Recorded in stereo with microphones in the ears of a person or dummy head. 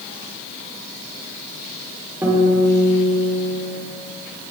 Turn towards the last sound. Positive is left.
turn(degrees=-15)  # may be behind; listen again after turning